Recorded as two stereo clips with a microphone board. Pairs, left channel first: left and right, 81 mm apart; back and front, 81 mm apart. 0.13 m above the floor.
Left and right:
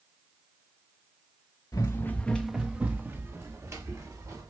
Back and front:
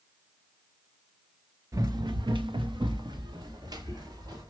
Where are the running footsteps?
45° left, 0.5 m; by 4.5 s 45° right, 1.7 m.